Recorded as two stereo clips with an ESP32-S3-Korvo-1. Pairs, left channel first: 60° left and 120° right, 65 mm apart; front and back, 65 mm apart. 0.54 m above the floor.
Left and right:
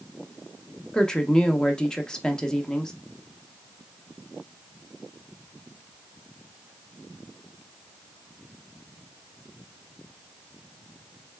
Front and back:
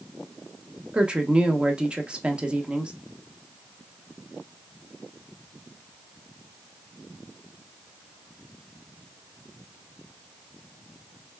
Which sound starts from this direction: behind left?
A woman speaking, at 0.9 s.